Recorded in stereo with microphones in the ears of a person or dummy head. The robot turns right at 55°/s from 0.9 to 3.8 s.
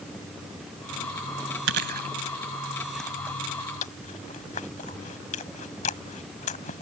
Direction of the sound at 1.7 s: 70° right (ahead or behind).